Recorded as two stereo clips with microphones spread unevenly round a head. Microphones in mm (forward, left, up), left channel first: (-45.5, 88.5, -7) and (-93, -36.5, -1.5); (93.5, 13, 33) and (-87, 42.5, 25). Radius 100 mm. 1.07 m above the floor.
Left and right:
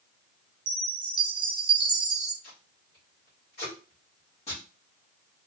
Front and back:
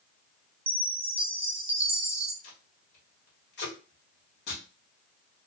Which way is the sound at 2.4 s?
15° left.